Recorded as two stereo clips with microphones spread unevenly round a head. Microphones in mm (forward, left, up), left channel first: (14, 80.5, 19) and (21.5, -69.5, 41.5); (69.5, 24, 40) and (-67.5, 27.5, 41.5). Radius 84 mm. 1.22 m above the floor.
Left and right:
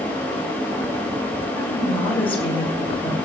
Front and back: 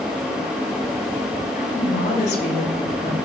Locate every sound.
1.6 s a woman speaking: 35° left, 5.5 m